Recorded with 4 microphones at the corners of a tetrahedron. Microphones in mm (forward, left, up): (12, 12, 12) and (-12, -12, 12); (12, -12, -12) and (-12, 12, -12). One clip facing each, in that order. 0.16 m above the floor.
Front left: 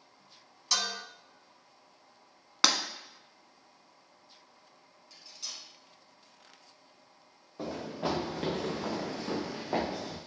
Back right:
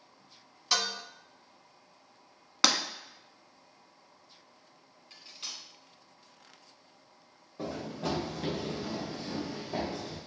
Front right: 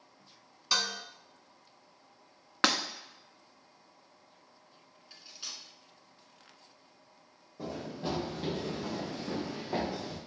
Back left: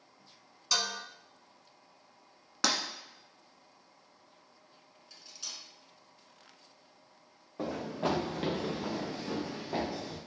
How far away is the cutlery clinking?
About 0.8 m.